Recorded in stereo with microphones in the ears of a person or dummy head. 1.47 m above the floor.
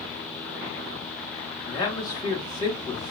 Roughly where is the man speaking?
Left.